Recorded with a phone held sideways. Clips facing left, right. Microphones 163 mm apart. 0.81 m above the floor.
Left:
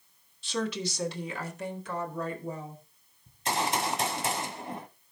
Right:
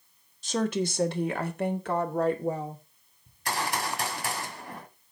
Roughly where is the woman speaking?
Right.